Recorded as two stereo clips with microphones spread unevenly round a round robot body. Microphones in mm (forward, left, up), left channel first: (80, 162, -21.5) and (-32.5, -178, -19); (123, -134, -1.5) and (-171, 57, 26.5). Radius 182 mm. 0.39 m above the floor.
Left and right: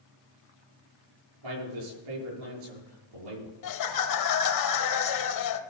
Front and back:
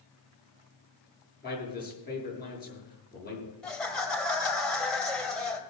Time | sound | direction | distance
1.4 | a man speaking | 95° right | 7 m
3.6 | laughter | 50° left | 1.6 m